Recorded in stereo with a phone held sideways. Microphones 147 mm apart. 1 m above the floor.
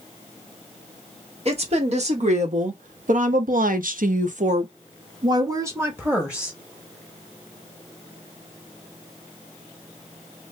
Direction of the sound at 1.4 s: 45° right (ahead or behind).